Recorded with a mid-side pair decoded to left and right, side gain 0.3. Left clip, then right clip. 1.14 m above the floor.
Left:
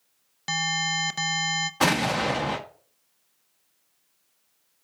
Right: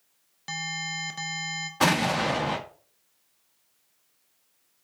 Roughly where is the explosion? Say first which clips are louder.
Right 1 dB; ahead.